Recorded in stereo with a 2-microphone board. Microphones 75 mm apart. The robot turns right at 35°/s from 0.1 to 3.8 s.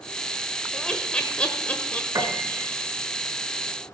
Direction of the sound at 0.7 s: 10° left (ahead or behind).